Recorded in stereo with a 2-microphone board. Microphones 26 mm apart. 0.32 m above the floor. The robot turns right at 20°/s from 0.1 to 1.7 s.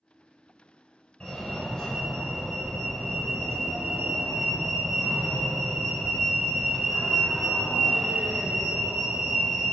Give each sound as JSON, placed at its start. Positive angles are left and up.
{"t": 1.2, "sound": "a fire alarm", "side_deg": 20, "distance_m": 2.5}